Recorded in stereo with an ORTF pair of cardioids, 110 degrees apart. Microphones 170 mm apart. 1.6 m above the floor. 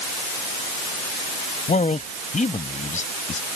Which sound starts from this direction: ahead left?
A man speaking, at 1.7 s.